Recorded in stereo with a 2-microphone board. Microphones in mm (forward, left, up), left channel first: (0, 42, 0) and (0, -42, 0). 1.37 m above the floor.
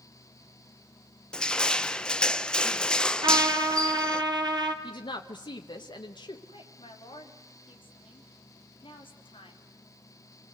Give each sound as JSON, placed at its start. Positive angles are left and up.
{"t": 1.3, "sound": "crushing", "side_deg": 10, "distance_m": 0.7}
{"t": 3.2, "sound": "a trumpet", "side_deg": -50, "distance_m": 2.0}
{"t": 4.8, "sound": "a woman speaking", "side_deg": 60, "distance_m": 1.2}
{"t": 6.5, "sound": "a woman speaking", "side_deg": 85, "distance_m": 3.0}